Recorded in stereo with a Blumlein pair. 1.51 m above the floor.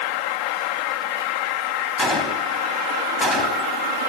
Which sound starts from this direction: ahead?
A gunshot, at 2.0 s.